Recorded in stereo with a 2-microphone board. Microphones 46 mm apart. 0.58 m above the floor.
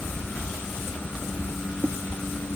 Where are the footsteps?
I don't hear footsteps.